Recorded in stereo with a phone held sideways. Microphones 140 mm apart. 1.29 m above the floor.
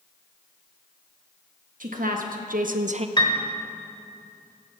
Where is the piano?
30° left (ahead or behind), 1.2 m.